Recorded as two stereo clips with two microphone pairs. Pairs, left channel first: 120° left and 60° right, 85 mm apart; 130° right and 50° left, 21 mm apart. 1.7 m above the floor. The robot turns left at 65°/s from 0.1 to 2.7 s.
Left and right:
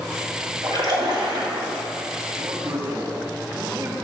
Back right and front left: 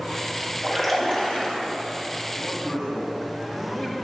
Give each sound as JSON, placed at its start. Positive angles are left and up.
{"t": 0.6, "sound": "a splash", "azimuth_deg": -35, "distance_m": 2.5}
{"t": 2.4, "sound": "a man speaking", "azimuth_deg": -80, "distance_m": 2.5}